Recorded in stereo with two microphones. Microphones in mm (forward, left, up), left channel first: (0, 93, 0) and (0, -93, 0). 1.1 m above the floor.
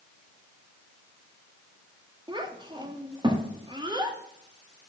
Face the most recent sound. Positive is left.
turn(degrees=-25)  # may be behind; listen again after turning